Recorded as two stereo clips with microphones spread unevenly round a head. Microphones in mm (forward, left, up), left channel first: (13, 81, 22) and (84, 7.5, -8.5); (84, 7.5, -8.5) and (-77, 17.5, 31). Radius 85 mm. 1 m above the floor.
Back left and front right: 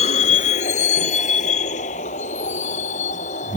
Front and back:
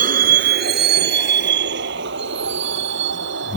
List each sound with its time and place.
0.0 s a vehicle: 140° left; by 3.6 s 165° left